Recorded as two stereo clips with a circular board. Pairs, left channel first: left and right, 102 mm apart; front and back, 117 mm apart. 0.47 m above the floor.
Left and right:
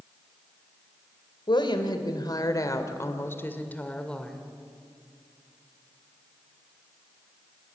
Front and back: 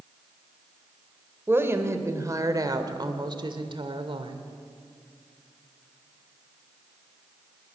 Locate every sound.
1.5 s a woman speaking: 115° left, 2 m; by 4.4 s 175° left, 1.7 m